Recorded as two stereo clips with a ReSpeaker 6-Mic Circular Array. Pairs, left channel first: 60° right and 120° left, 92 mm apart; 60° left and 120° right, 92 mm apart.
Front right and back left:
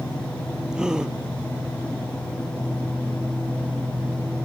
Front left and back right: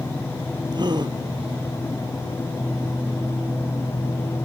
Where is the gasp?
160° right.